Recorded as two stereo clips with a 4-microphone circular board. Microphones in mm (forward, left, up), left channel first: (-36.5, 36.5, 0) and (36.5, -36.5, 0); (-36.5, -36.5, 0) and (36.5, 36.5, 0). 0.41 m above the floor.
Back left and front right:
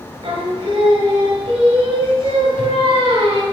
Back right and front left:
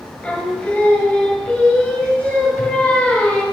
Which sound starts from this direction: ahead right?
Singing, at 0.2 s.